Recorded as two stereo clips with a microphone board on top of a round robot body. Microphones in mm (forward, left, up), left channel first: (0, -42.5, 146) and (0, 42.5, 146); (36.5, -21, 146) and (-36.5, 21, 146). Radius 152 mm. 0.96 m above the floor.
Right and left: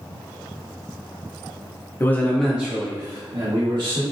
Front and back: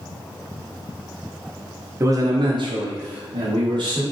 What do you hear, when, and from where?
2.0 s a man speaking: 150° right, 0.7 m; by 4.0 s 120° left, 1.4 m